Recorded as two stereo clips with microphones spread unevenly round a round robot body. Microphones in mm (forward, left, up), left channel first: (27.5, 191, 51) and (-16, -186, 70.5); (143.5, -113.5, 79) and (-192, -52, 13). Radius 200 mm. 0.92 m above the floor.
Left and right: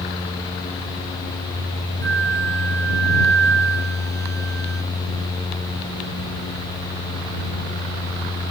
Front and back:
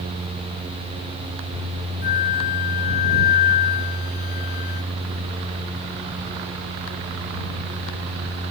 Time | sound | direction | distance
2.0 | a flute | 30° right | ?